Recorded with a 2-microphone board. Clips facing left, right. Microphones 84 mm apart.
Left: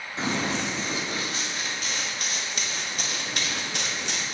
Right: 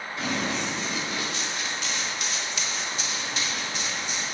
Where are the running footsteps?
30° left (ahead or behind), 4.5 m; by 4.2 s 70° left (ahead or behind), 2.5 m.